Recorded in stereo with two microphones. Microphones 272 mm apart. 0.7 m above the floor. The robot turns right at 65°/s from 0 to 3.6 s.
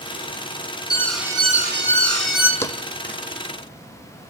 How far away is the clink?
No clink in this recording.